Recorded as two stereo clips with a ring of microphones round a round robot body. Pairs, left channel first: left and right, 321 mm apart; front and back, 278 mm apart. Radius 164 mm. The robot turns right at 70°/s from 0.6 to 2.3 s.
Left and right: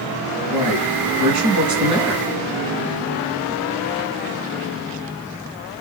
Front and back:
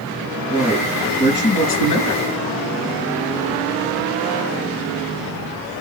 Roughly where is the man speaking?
Right.